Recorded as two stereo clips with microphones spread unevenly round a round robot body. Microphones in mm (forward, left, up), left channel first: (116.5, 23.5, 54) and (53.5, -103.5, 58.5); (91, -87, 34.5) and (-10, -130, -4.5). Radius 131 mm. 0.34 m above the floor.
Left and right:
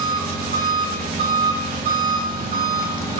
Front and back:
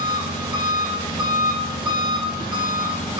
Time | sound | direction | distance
0.0 | an engine running | 115° right | 4 m